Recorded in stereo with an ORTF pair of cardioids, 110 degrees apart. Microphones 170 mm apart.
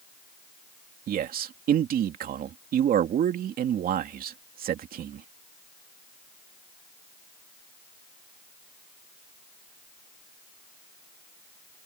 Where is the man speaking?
60° right.